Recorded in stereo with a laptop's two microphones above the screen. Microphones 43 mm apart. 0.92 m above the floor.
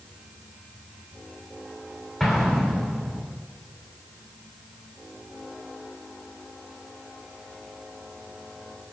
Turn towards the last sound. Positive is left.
turn(degrees=0)  # may be behind; listen again after turning